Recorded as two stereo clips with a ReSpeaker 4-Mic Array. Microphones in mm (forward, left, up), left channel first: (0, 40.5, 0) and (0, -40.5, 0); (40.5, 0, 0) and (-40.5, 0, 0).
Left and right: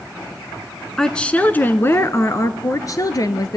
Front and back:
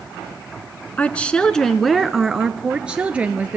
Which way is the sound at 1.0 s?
20° left.